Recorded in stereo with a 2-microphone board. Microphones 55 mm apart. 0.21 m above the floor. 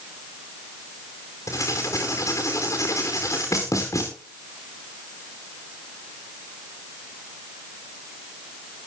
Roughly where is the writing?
Left.